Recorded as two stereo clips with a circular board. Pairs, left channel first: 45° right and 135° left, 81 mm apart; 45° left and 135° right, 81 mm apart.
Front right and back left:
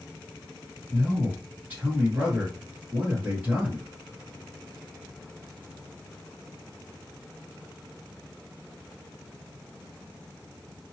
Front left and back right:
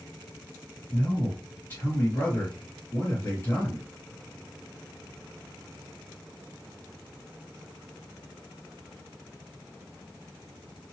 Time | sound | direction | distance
0.9 | a man speaking | 85° left | 1.9 m